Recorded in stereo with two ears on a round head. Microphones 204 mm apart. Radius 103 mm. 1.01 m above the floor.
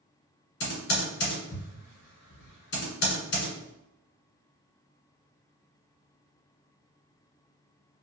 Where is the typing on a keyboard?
45° left (ahead or behind), 1.2 m.